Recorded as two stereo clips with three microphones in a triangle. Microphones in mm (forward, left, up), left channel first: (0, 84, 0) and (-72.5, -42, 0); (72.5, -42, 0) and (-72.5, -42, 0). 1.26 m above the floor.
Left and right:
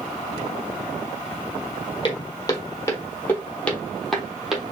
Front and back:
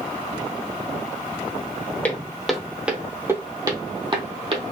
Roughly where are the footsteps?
Left.